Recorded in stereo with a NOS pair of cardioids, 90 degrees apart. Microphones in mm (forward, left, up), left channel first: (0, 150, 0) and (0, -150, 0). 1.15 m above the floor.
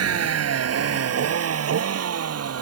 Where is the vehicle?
55° right; by 2.6 s 50° right.